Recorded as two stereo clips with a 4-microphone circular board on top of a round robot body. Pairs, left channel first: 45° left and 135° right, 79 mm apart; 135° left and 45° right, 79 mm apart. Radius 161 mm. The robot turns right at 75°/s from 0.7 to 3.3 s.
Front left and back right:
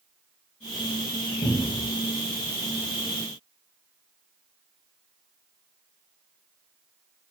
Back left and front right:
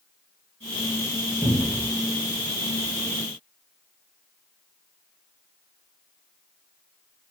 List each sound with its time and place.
1.4 s a cupboard door: 15° left, 0.7 m; by 1.9 s 50° left, 0.7 m